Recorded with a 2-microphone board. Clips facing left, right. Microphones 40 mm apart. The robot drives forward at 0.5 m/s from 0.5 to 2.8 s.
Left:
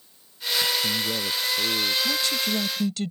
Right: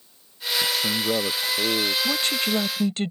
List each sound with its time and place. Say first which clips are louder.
0.6 s a man speaking: right 2 dB; 80° right; by 1.9 s 75° right (ahead or behind)
2.0 s a woman speaking: right 1 dB; 45° right (ahead or behind)